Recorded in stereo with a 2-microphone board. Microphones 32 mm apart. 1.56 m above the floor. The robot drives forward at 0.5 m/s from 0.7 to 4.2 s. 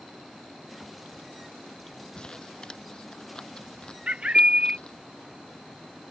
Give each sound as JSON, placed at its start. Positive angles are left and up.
{"t": 2.1, "sound": "crumpling", "side_deg": 25}
{"t": 4.1, "sound": "a bird", "side_deg": -30}